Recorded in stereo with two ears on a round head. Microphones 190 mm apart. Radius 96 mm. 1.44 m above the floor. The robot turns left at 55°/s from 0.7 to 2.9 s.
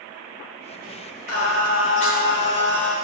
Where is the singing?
95° left, 2.5 m; by 2.9 s 5° left, 2.5 m.